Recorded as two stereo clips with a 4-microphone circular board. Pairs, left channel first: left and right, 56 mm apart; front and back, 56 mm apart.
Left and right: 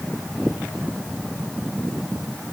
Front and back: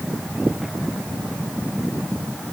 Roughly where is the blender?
No blender in this recording.